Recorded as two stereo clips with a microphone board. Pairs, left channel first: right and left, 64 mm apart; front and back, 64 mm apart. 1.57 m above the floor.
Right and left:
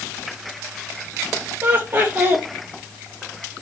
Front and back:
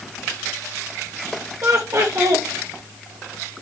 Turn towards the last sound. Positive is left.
turn(degrees=150)